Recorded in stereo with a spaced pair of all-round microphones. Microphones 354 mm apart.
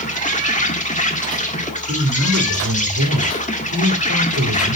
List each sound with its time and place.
0.0 s an insect: 20° left (ahead or behind), 1.6 m
1.9 s a man speaking: 50° right (ahead or behind), 3 m